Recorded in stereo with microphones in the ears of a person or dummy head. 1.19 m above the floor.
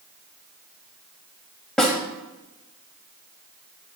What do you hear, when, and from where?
1.8 s a snare drum: 5° left (ahead or behind), 1.4 m